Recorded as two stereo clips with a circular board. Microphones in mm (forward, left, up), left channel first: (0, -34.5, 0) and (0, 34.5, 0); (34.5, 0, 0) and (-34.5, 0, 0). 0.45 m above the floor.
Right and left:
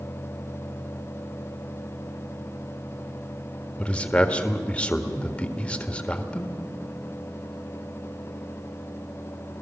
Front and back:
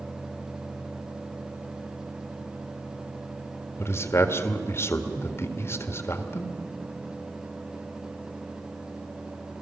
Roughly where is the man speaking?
Ahead right.